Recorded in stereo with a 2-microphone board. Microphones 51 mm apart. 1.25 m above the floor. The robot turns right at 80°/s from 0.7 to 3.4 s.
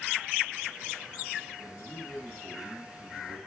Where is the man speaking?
100° left, 7 m; by 3.4 s 115° right, 7 m.